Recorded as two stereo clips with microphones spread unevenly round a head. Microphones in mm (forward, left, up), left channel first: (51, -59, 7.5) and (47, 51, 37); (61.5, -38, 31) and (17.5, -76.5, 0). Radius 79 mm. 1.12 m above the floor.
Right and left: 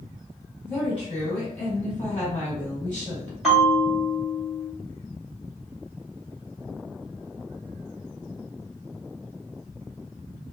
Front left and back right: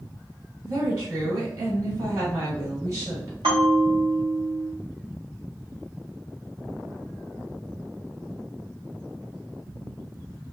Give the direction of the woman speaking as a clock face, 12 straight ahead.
5 o'clock.